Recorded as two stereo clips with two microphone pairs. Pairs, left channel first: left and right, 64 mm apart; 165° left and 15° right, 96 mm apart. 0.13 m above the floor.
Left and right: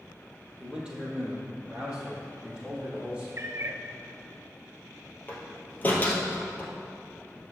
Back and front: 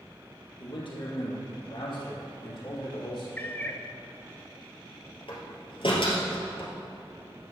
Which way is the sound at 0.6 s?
170° right.